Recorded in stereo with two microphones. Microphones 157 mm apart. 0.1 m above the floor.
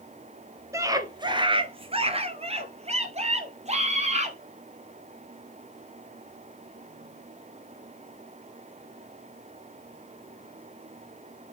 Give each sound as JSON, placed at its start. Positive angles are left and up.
{"t": 0.7, "sound": "a scream", "side_deg": -20, "distance_m": 1.2}